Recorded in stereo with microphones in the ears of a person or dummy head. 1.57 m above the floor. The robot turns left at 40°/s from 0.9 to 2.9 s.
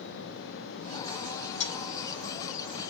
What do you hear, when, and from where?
1.6 s a dropped coin: 35° left (ahead or behind), 1.8 m; by 1.7 s 30° left (ahead or behind), 1.8 m